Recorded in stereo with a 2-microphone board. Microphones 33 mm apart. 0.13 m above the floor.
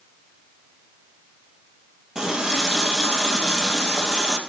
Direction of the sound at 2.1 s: 20° right (ahead or behind).